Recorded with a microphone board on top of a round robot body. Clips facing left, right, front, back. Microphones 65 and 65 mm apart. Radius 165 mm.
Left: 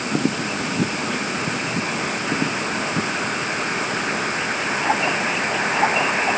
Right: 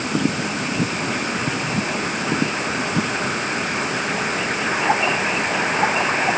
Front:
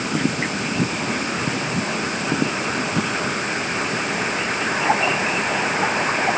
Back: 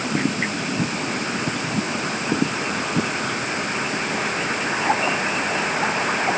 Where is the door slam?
No door slam in this recording.